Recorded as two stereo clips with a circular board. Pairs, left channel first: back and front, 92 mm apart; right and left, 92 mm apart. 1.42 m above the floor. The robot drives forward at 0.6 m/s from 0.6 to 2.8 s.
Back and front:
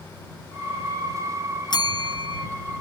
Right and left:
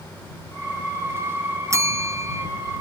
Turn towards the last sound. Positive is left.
turn(degrees=150)